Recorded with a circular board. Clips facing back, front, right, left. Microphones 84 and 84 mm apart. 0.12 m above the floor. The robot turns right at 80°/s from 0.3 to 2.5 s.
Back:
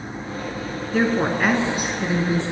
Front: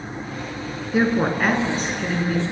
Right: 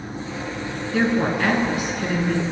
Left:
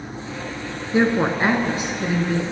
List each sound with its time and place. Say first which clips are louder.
0.9 s a woman speaking: front 1 dB, left 2 dB; 55° left, 1.2 m; by 2.4 s 175° left, 1.2 m